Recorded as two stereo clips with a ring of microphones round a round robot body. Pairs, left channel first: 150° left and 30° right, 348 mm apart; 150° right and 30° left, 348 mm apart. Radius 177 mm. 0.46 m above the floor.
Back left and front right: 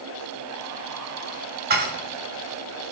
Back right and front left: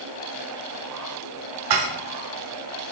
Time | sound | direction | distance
1.7 | dishes clattering | 30° left | 1.6 m